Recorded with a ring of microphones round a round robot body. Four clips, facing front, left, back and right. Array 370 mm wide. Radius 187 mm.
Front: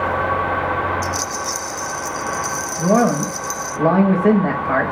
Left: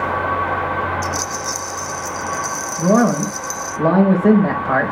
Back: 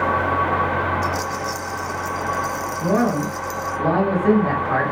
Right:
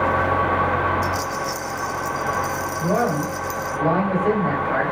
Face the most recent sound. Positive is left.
turn(degrees=55)